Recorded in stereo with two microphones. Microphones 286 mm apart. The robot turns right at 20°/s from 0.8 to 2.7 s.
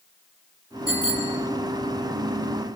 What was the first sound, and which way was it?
A bicycle bell, 50° left (ahead or behind).